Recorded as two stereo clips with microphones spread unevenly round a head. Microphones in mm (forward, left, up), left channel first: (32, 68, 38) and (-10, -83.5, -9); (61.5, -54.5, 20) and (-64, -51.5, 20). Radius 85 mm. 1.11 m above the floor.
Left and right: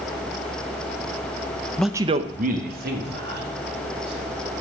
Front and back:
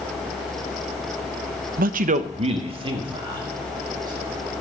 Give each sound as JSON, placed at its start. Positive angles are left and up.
{"t": 1.8, "sound": "a man speaking", "azimuth_deg": 160, "distance_m": 0.5}